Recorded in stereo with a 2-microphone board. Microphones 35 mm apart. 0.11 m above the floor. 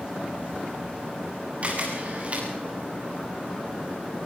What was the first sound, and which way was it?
A camera shutter, 35° right (ahead or behind).